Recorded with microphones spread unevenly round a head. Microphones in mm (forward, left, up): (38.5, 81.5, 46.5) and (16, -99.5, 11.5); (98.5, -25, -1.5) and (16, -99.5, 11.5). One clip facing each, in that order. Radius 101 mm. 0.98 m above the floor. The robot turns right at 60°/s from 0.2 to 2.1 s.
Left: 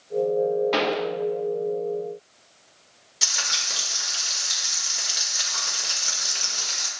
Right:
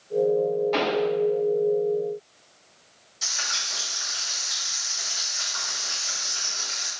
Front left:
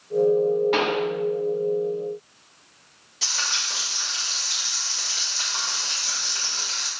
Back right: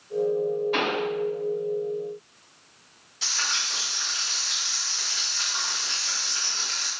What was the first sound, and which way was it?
A pop, 60° left.